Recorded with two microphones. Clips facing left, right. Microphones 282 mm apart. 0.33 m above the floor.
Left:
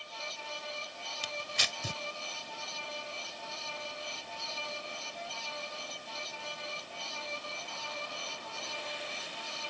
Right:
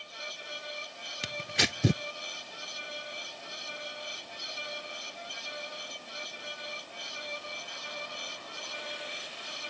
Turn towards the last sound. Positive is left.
turn(degrees=-75)  # may be behind; listen again after turning